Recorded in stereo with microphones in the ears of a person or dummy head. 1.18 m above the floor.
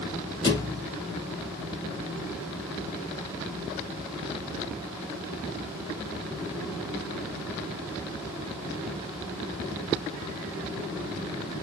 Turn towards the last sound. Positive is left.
turn(degrees=25)  # may be behind; listen again after turning